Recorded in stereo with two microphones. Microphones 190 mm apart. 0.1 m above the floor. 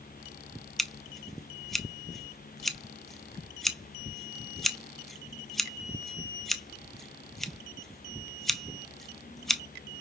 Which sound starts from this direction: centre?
Scissors, at 0.8 s.